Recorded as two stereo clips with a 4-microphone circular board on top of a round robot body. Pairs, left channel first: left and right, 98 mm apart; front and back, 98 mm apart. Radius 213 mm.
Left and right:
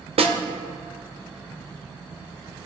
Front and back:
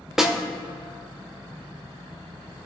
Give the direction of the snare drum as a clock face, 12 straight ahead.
3 o'clock.